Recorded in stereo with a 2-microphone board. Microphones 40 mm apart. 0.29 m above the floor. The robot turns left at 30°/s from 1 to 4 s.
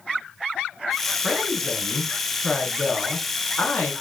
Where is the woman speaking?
175° right, 3 m; by 3.9 s 105° left, 3 m.